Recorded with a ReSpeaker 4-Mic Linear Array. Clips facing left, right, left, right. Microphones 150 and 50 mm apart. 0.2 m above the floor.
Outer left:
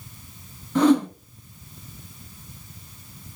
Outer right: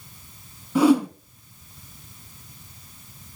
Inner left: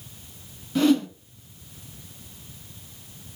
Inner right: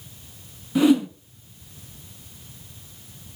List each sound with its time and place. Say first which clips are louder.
0.8 s a whoosh: even, inner right 2 dB; 10° right (ahead or behind), 0.7 m